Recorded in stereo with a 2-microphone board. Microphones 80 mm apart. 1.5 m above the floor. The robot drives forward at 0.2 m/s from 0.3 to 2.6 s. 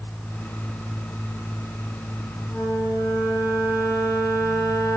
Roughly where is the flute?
Left.